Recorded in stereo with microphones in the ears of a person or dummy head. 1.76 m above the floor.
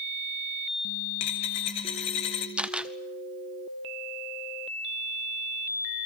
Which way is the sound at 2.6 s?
5° right (ahead or behind).